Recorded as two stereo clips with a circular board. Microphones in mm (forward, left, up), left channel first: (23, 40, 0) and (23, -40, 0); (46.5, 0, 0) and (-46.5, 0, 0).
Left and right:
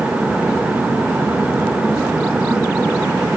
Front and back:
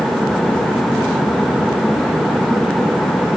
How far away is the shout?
No shout in this recording.